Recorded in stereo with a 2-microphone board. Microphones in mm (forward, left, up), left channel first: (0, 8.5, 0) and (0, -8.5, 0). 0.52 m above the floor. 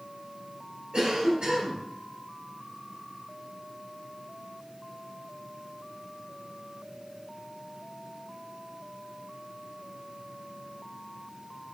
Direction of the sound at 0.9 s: 60° right (ahead or behind).